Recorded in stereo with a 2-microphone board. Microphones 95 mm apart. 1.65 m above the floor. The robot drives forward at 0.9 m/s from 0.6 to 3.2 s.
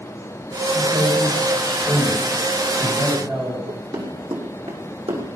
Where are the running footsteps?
55° right (ahead or behind), 4 m; by 5.2 s 70° right (ahead or behind), 5 m.